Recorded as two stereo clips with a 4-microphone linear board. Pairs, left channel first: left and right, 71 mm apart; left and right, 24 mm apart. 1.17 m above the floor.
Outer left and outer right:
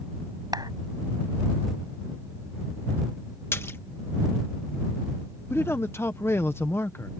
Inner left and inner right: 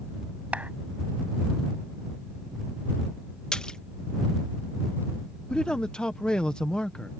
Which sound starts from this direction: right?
A clap, at 0.5 s.